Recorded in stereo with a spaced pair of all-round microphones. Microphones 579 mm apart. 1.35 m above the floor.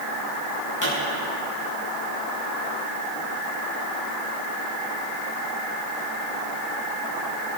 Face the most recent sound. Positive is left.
turn(degrees=30)  # may be behind; listen again after turning